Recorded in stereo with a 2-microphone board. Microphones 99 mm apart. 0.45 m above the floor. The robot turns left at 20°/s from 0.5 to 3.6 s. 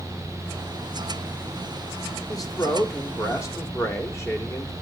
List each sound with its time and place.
2.3 s a man speaking: 35° left (ahead or behind), 1.6 m; by 4.7 s 30° left (ahead or behind), 1.6 m